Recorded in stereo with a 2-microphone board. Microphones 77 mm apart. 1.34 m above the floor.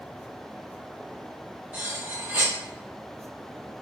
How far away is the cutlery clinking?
About 1.6 m.